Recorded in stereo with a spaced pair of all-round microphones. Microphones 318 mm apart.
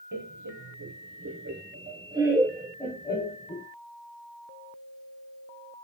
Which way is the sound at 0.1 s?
75° right (ahead or behind).